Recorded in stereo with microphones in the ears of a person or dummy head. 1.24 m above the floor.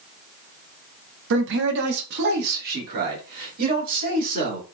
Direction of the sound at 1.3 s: 65° right (ahead or behind).